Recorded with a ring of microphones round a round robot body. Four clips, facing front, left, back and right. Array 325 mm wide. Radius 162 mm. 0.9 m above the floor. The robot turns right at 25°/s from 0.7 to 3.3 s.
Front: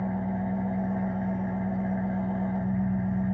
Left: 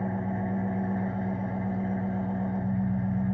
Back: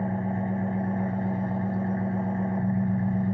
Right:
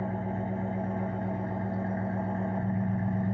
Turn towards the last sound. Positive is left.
turn(degrees=-135)